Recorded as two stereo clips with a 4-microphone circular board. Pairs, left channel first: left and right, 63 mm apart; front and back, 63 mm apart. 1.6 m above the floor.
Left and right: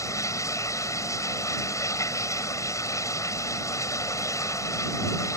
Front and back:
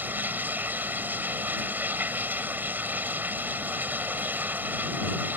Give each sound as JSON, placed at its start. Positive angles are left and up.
{"t": 0.0, "sound": "running water", "azimuth_deg": 120}